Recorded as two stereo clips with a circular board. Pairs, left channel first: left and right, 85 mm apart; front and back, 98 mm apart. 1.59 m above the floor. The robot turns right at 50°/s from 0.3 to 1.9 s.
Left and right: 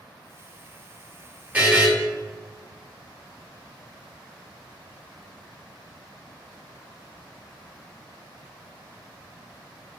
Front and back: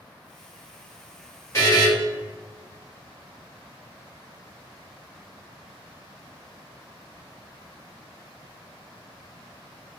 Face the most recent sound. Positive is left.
turn(degrees=-15)